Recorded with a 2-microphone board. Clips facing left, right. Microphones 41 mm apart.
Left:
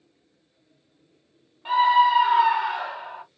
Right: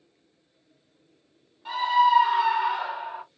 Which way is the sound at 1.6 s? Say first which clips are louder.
Left 3 dB; 25° left (ahead or behind).